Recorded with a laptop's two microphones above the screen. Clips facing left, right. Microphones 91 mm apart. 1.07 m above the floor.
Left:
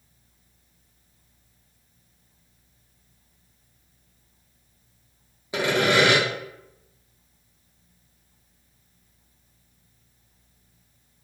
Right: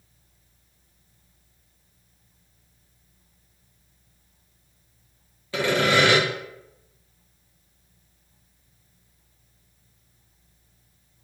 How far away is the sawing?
About 1.3 m.